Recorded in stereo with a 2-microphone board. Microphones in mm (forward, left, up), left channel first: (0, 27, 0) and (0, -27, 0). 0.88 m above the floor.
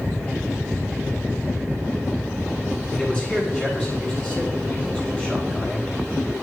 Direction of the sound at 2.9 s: 25° left (ahead or behind).